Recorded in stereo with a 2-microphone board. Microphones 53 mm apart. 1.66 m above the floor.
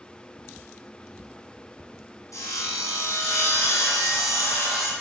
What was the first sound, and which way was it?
Sawing, 80° left.